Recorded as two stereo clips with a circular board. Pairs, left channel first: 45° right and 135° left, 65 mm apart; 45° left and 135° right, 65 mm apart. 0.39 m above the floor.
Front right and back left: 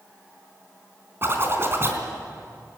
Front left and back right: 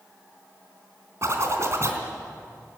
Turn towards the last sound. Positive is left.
turn(degrees=-175)